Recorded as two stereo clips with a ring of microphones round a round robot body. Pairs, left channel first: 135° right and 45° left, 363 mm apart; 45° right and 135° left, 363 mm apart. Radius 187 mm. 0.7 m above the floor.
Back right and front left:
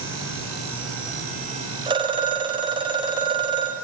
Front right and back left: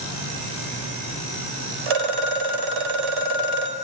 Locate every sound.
1.9 s a phone ringing: 120° left, 3 m